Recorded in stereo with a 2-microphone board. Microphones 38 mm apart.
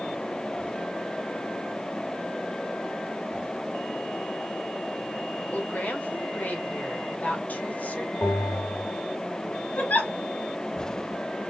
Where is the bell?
70° left (ahead or behind), 3.5 m.